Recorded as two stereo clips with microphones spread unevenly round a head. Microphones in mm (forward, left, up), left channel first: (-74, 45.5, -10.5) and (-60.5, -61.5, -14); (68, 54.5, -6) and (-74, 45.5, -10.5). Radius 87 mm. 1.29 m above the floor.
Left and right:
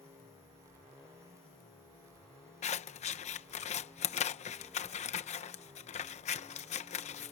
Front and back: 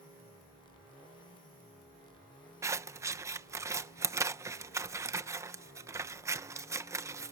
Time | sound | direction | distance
2.6 | scissors | 115° left | ?